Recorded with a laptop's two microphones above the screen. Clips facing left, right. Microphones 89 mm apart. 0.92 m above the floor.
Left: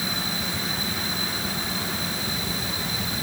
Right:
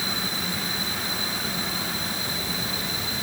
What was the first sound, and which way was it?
Only background noise.